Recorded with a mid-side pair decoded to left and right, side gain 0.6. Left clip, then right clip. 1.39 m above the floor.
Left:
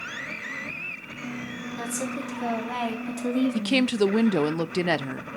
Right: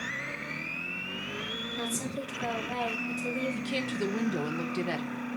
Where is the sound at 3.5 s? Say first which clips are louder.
Left 9 dB; 45° left, 0.6 m.